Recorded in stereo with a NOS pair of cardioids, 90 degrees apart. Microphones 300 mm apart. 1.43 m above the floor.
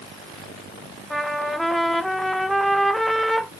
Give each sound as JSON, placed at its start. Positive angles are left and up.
{"t": 1.1, "sound": "a trumpet", "azimuth_deg": 0, "distance_m": 0.7}